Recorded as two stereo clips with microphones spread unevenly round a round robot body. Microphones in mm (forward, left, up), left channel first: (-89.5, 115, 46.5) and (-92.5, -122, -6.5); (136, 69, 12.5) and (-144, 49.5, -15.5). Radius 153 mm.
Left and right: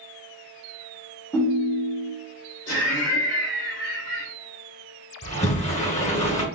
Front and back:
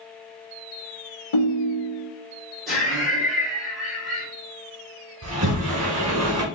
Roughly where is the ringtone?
Ahead.